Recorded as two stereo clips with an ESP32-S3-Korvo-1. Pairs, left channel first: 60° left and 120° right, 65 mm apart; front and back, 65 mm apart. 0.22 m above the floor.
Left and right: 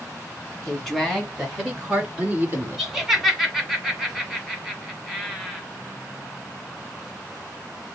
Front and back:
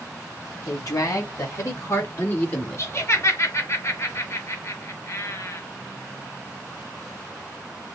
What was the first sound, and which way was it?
A woman speaking, 25° right.